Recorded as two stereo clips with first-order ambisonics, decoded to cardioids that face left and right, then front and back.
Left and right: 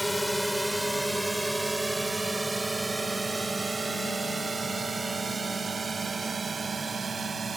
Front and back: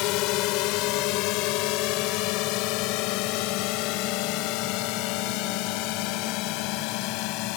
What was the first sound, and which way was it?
A drone, straight ahead.